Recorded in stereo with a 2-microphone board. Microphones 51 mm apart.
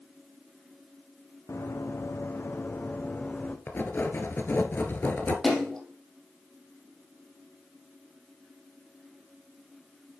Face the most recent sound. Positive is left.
turn(degrees=10)  # may be behind; listen again after turning